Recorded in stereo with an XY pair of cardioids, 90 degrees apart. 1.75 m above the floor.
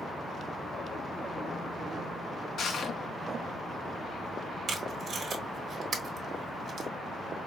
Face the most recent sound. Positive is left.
turn(degrees=-60)